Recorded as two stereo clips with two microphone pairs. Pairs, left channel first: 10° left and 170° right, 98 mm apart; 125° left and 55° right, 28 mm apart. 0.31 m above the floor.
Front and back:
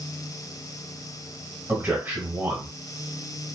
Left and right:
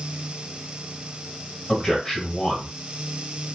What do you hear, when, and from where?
1.7 s a man speaking: 160° left, 1.5 m